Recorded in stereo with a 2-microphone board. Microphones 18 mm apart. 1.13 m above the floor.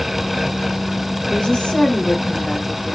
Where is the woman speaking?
65° left (ahead or behind), 1.3 m; by 3.0 s 60° left (ahead or behind), 2 m.